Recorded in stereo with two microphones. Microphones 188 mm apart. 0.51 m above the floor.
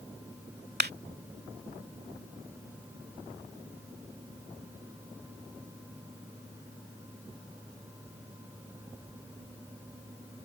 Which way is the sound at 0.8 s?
60° right (ahead or behind).